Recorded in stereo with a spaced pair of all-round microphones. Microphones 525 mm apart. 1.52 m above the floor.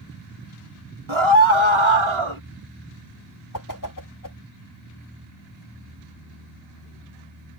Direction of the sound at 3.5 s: 40° left (ahead or behind).